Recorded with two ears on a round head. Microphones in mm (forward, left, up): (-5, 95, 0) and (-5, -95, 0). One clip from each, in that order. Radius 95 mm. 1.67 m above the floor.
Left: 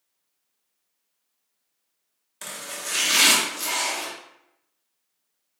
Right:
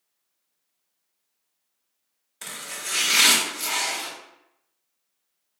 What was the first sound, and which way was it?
Chopping, 5° left (ahead or behind).